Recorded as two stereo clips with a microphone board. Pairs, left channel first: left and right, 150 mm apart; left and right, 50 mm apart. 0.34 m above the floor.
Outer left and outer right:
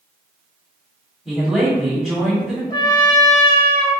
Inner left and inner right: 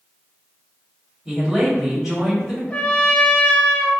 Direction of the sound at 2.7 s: 25° left (ahead or behind).